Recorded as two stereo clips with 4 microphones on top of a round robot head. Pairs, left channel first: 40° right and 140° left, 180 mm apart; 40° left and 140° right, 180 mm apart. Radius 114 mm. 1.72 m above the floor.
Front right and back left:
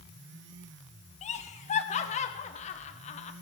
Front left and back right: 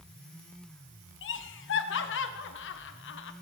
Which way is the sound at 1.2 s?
15° left.